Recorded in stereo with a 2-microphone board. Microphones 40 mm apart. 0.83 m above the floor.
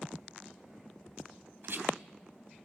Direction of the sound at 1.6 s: 65° right (ahead or behind).